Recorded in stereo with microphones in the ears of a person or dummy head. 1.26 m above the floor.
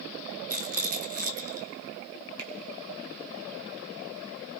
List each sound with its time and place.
0.5 s a rattle: 40° right (ahead or behind), 1.1 m
2.4 s a finger snap: 65° right (ahead or behind), 3.5 m